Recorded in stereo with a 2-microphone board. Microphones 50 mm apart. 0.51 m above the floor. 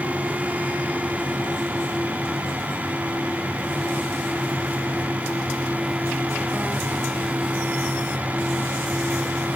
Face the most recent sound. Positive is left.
No sound to turn to.